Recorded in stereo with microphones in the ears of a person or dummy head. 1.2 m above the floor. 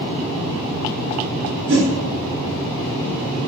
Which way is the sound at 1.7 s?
35° right (ahead or behind).